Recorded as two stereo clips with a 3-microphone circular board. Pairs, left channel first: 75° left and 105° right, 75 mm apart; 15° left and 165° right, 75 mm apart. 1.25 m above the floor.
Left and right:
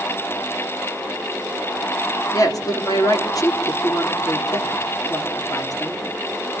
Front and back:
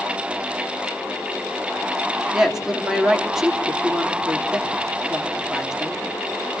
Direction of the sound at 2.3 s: 110° left.